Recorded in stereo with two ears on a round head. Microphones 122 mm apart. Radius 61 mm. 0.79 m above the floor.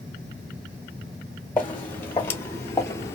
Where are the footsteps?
15° left (ahead or behind), 1.2 m; by 3.1 s 20° left (ahead or behind), 0.8 m.